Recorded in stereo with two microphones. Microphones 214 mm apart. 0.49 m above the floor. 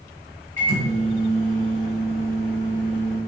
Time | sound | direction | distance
0.6 | a microwave | 65° left (ahead or behind) | 2 m